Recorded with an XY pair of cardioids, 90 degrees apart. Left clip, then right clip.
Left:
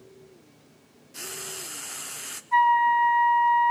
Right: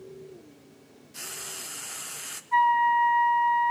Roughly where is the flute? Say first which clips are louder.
Left 2 dB; ahead left.